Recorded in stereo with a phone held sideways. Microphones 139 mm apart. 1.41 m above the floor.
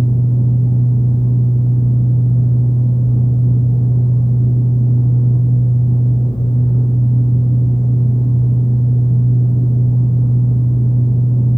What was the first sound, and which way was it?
A fan, 35° left (ahead or behind).